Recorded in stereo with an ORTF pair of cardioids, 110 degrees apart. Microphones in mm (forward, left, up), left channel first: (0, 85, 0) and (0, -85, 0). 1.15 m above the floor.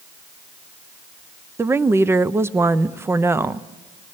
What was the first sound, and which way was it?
A woman speaking, 15° right.